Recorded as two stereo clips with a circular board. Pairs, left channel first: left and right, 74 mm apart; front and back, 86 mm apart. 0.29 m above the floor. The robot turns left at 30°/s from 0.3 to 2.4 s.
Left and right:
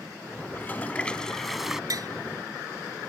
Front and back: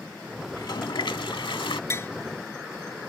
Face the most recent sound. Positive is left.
turn(degrees=-70)